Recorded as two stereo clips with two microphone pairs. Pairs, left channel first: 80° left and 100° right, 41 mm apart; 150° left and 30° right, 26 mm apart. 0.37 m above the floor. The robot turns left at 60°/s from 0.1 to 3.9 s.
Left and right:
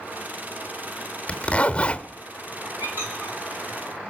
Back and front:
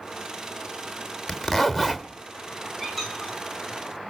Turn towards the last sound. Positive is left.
turn(degrees=180)